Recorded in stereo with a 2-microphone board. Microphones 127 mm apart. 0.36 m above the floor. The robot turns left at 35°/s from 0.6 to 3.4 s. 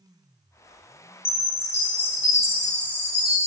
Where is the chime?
120° left, 2.0 m; by 3.5 s 45° left, 2.0 m.